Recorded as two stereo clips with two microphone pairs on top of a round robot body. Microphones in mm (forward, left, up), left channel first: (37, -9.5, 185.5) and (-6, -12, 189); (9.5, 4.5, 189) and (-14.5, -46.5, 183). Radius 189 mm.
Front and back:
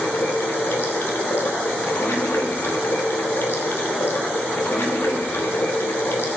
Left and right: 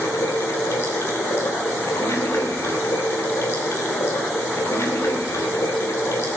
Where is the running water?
30° left, 3 m.